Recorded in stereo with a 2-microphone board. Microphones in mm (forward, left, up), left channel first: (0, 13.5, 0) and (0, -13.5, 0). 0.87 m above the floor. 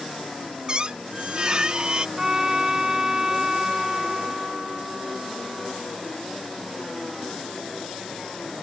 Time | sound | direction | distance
0.7 | a squeak | 30° right (ahead or behind) | ?
2.2 | a trumpet | 20° right (ahead or behind) | ?